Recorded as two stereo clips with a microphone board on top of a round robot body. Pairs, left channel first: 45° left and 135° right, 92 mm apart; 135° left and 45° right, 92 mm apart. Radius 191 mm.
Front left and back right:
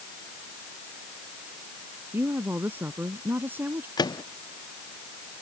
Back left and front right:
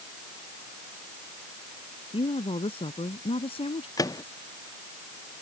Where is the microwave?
85° left.